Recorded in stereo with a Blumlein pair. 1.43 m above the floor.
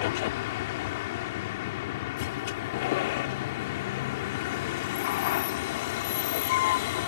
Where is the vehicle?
50° left.